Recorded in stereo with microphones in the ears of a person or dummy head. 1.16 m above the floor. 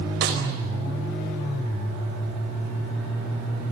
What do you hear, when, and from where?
0.2 s a snare drum: 65° right (ahead or behind), 4.5 m